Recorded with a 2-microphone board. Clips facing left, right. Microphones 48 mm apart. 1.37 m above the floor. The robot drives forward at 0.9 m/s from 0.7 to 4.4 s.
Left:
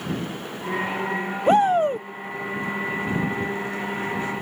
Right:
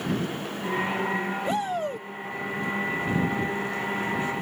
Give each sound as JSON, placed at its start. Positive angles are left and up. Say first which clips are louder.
{"t": 1.5, "sound": "a shout", "louder": "left 14 dB", "side_deg": 50}